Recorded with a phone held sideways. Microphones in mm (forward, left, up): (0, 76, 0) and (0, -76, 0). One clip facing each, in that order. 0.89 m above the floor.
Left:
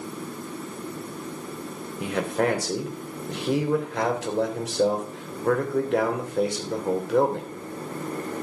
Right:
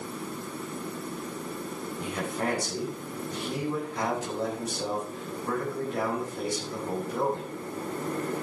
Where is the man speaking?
80° left, 3 m.